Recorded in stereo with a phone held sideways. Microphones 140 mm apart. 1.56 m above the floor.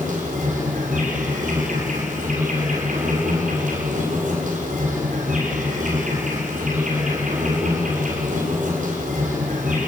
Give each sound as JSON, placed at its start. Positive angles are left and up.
{"t": 0.0, "sound": "an insect", "side_deg": -70, "distance_m": 7.0}